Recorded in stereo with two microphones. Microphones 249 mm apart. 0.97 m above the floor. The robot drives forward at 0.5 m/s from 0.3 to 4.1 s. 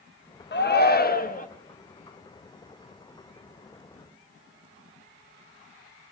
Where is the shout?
45° left (ahead or behind), 1.2 m; by 1.5 s 35° left (ahead or behind), 1.5 m.